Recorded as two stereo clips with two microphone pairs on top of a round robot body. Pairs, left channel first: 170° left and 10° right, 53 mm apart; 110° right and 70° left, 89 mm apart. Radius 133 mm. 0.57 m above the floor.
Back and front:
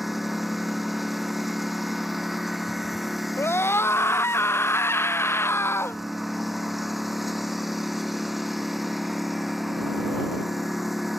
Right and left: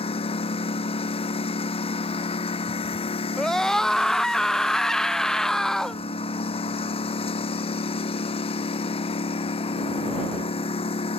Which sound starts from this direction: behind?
A scream, at 3.4 s.